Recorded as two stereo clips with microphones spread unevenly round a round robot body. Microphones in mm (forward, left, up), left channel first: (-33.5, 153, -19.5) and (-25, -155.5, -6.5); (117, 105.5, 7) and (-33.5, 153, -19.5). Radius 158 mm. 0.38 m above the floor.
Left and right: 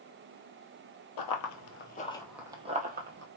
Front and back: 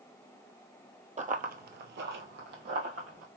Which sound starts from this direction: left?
Running footsteps, at 1.2 s.